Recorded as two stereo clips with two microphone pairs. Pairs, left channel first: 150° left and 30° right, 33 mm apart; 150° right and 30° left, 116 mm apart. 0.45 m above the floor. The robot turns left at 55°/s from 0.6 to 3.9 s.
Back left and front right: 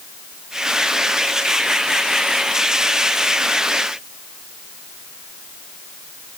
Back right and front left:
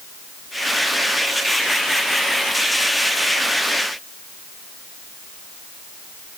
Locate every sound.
Only background noise.